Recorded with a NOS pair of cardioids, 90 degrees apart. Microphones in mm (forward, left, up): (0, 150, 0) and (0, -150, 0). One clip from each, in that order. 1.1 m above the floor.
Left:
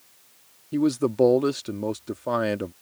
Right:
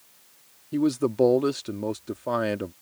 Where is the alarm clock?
I don't hear an alarm clock.